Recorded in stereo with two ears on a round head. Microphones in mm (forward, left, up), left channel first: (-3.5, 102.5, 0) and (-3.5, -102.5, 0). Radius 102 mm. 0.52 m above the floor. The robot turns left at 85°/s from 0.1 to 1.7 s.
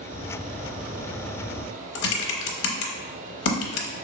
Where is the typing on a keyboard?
65° left (ahead or behind), 0.6 m.